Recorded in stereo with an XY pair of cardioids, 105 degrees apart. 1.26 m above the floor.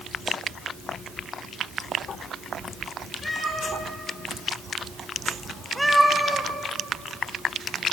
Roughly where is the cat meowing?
Ahead left.